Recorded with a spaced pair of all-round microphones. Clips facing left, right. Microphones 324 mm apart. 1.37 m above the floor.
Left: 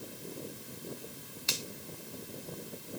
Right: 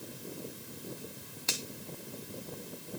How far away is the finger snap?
About 2.5 m.